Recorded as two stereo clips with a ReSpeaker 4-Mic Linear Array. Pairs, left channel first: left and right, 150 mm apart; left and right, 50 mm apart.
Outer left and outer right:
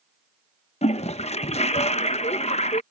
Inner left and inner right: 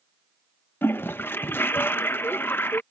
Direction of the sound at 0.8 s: 45° left (ahead or behind).